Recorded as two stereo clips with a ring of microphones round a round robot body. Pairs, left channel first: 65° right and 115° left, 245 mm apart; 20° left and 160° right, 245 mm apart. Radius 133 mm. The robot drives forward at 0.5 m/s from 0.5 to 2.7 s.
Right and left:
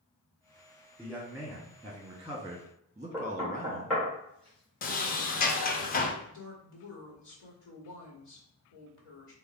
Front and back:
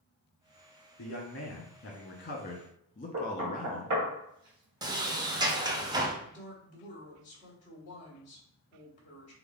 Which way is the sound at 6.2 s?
35° right.